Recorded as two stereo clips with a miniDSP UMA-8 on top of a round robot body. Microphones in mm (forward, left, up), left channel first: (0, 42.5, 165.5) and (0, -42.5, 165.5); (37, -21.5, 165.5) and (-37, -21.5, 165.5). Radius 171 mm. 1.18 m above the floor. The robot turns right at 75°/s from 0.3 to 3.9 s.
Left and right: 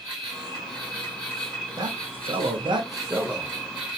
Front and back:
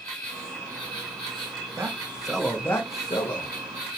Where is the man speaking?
130° right, 0.9 m; by 3.6 s 5° left, 0.9 m.